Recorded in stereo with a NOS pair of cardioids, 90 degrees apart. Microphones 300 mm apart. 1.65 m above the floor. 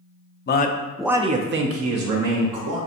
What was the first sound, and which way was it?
A man speaking, 35° left.